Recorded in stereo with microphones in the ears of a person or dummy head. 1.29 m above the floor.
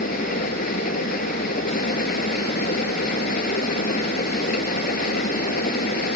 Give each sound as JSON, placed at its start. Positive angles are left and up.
{"t": 0.0, "sound": "an engine running", "side_deg": 55}